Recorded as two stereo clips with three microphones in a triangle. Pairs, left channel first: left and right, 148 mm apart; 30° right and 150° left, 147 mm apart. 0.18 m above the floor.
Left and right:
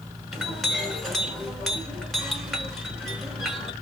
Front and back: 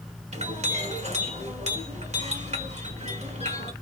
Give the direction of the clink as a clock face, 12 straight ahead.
6 o'clock.